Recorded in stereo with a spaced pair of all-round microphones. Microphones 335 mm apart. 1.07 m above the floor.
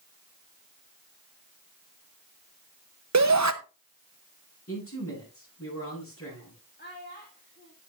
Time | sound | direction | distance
3.1 | a shout | 55° right (ahead or behind) | 0.8 m
4.7 | a man speaking | 45° left (ahead or behind) | 9 m
6.8 | a child speaking | 30° left (ahead or behind) | 1.7 m